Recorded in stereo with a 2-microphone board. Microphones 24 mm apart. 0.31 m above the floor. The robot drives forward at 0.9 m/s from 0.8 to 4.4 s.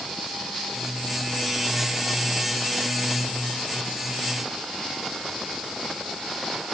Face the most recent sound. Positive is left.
No sound to turn to.